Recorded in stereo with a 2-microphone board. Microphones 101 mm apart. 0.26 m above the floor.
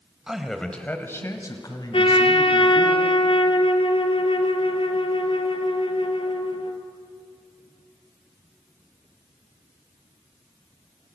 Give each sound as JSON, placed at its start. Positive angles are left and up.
{"t": 0.3, "sound": "a man speaking", "side_deg": -5, "distance_m": 1.6}
{"t": 1.9, "sound": "a trumpet", "side_deg": 60, "distance_m": 1.3}